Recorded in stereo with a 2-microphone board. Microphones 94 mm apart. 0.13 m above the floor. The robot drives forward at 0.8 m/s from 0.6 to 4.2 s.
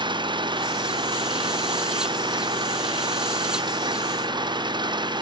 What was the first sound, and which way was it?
An engine running, 55° right (ahead or behind).